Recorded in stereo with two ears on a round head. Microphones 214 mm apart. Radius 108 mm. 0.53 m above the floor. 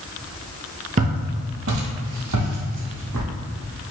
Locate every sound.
1.0 s footsteps: 30° right (ahead or behind), 0.6 m; by 3.3 s 75° right (ahead or behind), 1.7 m